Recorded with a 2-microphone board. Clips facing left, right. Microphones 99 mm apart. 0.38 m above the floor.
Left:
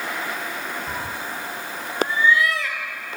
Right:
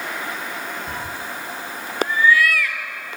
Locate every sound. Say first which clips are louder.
0.9 s a cat meowing: even; 5° left (ahead or behind), 1.2 m; by 3.2 s 30° left (ahead or behind), 2.5 m